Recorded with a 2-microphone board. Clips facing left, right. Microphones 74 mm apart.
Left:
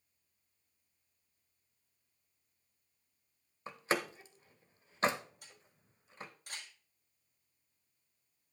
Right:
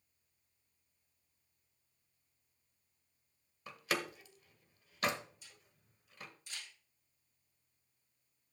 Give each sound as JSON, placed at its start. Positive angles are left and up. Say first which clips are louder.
{"t": 3.7, "sound": "a door slam", "louder": "left 3 dB", "side_deg": 30, "distance_m": 1.0}
{"t": 5.4, "sound": "a camera shutter", "louder": "left 2 dB", "side_deg": 60, "distance_m": 6.5}